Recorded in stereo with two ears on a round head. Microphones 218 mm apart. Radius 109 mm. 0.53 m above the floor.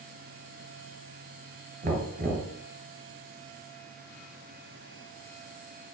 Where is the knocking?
35° right (ahead or behind), 2.5 m.